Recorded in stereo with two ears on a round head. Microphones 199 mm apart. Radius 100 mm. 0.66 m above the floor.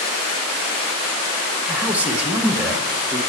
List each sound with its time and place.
1.7 s a man speaking: 5° right (ahead or behind), 1.0 m